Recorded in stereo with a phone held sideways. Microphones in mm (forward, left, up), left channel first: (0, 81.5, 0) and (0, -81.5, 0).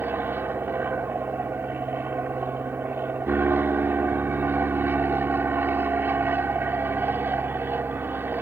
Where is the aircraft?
10° right (ahead or behind).